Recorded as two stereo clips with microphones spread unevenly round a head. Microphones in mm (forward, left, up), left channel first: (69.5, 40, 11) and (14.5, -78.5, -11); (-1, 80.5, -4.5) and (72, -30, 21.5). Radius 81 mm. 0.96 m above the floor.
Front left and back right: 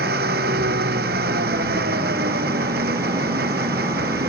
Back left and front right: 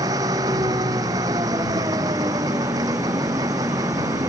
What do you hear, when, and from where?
0.0 s an engine running: 125° right